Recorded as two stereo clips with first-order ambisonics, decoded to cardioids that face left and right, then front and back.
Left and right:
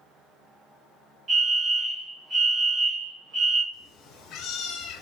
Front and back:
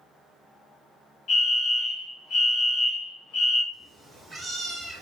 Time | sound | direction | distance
1.3 | a fire alarm | 35° right | 1.6 m
3.7 | a cat meowing | 110° left | 1.2 m